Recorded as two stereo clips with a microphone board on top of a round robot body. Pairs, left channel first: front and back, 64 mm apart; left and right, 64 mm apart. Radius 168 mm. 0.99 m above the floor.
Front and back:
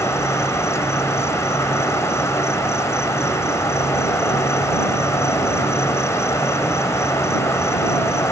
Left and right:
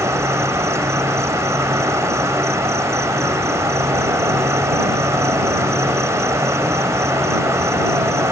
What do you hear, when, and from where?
0.0 s an insect: 45° right